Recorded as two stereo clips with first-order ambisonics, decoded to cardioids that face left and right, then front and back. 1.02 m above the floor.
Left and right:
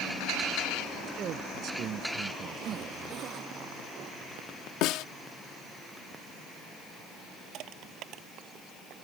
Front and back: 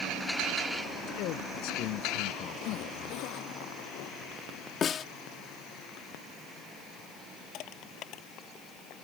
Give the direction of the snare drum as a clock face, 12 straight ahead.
10 o'clock.